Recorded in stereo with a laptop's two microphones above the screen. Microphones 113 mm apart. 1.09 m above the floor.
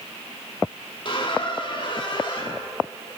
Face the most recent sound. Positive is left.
turn(degrees=45)  # may be behind; listen again after turning